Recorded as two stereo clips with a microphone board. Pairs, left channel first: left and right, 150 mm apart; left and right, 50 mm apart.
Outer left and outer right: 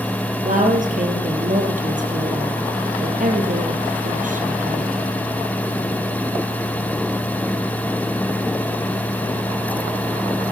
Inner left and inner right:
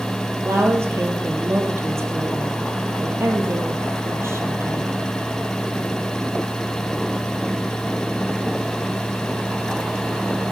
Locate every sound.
0.4 s a woman speaking: 65° right (ahead or behind), 2.5 m